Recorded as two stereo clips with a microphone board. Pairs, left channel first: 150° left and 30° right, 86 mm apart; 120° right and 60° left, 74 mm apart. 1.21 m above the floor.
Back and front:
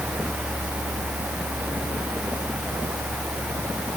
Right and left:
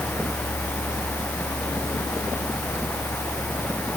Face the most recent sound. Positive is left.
No sound to turn to.